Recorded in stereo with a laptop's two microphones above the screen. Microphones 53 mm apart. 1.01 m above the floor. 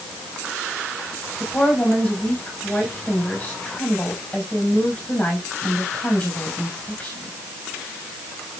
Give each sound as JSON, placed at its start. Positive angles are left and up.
{"t": 1.4, "sound": "a woman speaking", "side_deg": 30, "distance_m": 5.5}